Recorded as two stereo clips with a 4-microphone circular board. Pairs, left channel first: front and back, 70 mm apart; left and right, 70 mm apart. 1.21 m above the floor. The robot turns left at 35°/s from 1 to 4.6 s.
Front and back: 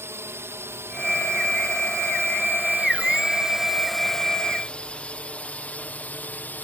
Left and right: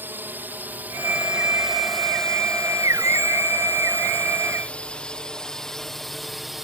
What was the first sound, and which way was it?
A drone, 140° right.